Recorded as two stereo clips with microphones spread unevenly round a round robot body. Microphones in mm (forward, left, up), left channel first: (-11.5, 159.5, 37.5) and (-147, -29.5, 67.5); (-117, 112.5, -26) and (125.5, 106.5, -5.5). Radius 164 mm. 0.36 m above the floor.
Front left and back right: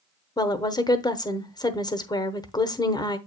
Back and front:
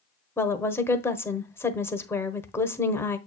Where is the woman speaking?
110° left, 1.0 m.